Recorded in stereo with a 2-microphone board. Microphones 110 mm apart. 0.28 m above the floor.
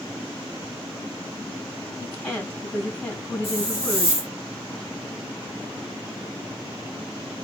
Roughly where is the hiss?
Left.